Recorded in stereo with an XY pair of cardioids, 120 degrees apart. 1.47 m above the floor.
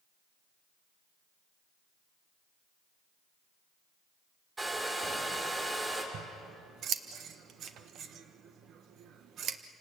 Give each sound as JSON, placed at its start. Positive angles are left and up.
{"t": 4.6, "sound": "a hair dryer", "azimuth_deg": -20, "distance_m": 5.0}
{"t": 6.1, "sound": "scissors", "azimuth_deg": -60, "distance_m": 1.3}